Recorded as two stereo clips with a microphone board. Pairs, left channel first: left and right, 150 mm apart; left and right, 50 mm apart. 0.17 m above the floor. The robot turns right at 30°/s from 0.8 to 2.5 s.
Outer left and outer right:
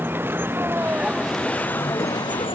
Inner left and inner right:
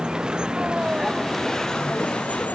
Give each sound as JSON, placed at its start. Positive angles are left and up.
{"t": 0.0, "sound": "a vehicle", "side_deg": -15}